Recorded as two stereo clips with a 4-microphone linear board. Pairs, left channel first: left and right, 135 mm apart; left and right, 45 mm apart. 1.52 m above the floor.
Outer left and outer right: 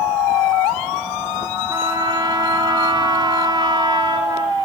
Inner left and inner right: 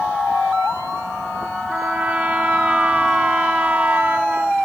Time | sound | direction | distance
1.7 | a trumpet | 30° right (ahead or behind) | 1.0 m